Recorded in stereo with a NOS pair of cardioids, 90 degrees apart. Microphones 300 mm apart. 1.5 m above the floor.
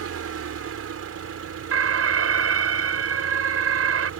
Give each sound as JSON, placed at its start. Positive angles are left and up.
{"t": 0.0, "sound": "an engine running", "azimuth_deg": -50}
{"t": 1.7, "sound": "an alarm", "azimuth_deg": -50}